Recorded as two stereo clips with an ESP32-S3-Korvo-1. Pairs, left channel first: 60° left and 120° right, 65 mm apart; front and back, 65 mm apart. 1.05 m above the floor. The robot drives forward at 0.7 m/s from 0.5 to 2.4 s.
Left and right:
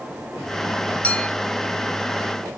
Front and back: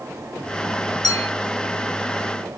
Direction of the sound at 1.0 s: 10° right.